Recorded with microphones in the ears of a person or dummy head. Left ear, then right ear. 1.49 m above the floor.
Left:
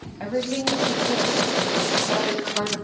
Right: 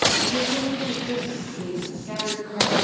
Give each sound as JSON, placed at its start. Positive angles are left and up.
{"t": 0.2, "sound": "a woman speaking", "side_deg": 75, "distance_m": 1.7}